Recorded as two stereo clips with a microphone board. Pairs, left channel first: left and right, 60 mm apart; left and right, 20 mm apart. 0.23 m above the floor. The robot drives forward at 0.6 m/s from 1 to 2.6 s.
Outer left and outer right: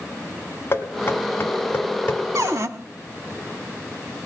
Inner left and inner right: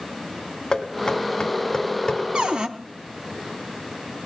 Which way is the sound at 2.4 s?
55° right (ahead or behind).